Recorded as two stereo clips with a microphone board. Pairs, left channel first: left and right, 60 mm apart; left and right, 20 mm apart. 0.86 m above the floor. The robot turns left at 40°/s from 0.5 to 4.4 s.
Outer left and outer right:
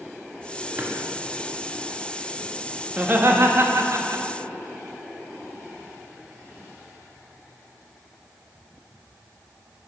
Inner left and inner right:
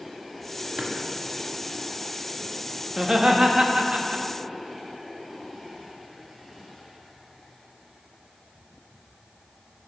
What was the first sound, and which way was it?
A drawer, 35° right (ahead or behind).